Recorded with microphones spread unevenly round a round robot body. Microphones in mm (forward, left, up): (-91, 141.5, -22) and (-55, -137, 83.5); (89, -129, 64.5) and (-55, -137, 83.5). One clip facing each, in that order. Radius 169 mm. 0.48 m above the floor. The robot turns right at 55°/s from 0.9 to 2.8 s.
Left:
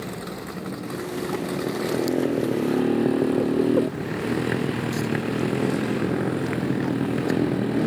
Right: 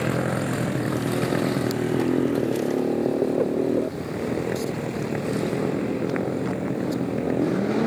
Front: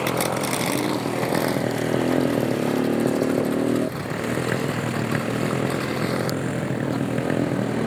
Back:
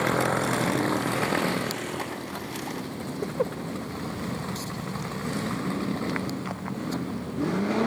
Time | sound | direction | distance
0.0 | a motorcycle | 75° right | ?